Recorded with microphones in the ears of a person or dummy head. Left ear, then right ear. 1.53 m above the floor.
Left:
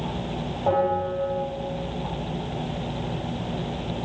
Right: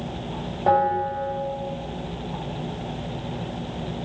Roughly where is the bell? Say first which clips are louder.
Right 3 dB; right.